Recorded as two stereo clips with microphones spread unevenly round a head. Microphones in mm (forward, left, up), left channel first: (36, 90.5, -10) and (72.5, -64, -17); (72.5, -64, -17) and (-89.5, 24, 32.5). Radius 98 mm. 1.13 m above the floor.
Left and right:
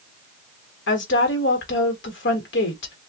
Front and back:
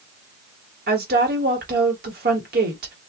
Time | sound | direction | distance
0.9 | a woman speaking | 105° left | 1.4 m